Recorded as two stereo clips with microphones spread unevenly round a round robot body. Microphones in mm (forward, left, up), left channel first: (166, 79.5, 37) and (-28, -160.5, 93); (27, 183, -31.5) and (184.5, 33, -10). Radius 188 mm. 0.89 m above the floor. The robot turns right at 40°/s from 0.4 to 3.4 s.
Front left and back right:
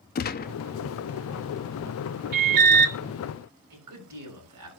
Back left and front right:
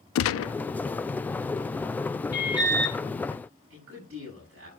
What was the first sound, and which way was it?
A gunshot, 115° left.